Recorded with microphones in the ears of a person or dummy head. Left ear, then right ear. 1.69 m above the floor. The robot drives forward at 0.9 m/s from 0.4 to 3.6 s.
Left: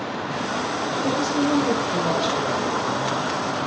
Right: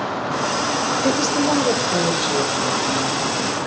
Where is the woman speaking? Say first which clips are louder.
Right 2 dB; 55° right (ahead or behind), 1.1 m; by 3.6 s 15° right (ahead or behind), 3 m.